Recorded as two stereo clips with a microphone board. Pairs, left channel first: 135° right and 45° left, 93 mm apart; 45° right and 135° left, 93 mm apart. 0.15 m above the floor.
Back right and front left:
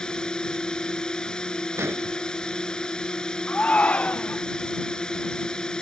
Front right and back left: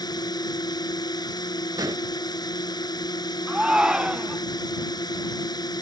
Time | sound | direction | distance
0.0 | a drone | 55° right | ?
1.8 | an explosion | 105° left | ?
3.5 | a shout | 165° right | ?